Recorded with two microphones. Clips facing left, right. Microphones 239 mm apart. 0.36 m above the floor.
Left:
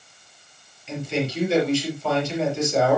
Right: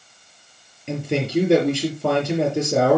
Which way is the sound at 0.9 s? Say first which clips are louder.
Right 3 dB; 60° right (ahead or behind).